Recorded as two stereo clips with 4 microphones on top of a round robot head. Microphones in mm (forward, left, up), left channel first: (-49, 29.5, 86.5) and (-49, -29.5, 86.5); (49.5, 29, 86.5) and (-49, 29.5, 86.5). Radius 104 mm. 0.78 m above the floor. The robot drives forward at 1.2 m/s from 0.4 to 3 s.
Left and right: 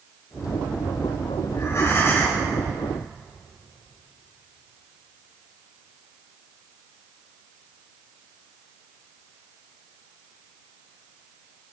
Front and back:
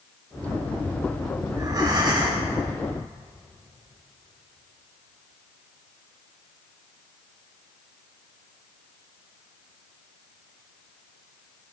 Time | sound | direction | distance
1.5 | breathing | 125° left | 3 m